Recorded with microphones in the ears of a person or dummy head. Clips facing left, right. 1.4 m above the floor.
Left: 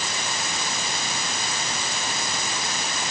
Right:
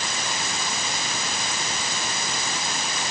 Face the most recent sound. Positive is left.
No sound to turn to.